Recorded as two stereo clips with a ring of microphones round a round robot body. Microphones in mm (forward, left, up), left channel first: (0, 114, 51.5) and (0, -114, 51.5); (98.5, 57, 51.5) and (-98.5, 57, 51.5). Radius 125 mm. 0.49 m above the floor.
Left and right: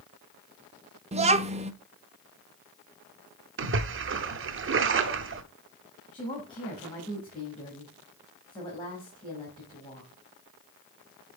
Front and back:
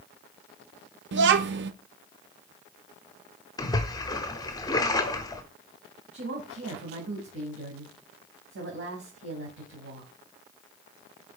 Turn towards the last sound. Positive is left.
turn(degrees=160)